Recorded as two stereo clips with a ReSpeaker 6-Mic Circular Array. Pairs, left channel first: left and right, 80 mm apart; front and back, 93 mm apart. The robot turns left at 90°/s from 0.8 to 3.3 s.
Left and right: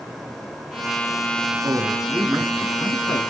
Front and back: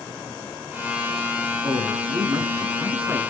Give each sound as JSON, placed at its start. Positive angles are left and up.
{"t": 1.6, "sound": "a man speaking", "azimuth_deg": -130, "distance_m": 2.0}